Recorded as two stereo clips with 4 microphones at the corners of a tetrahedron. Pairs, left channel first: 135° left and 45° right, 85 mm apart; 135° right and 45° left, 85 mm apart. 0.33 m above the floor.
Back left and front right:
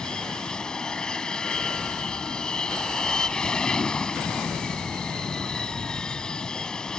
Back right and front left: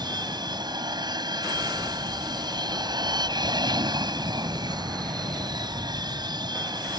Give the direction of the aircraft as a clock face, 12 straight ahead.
10 o'clock.